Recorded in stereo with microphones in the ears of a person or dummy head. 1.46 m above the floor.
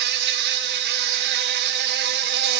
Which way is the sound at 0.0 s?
60° right (ahead or behind).